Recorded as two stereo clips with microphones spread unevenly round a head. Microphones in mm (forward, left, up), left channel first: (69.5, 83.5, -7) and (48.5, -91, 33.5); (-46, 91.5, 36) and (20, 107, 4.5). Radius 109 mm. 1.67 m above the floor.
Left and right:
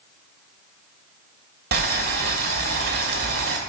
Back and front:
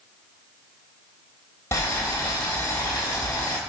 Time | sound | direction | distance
1.7 | boiling | 115° right | 3 m